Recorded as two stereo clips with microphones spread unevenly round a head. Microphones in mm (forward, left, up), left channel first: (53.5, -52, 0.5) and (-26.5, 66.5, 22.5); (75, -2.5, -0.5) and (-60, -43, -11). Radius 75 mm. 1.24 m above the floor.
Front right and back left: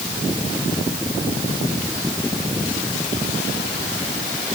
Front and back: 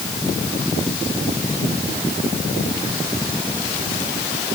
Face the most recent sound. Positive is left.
No sound to turn to.